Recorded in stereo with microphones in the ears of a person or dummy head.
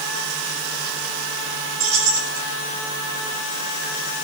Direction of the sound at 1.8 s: 85° right.